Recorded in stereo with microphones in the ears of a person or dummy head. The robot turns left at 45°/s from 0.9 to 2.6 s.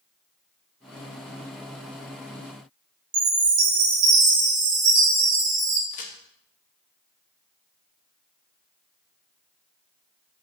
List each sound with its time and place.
3.1 s a chime: 50° right (ahead or behind), 1.6 m
5.9 s a crack: 35° left (ahead or behind), 0.8 m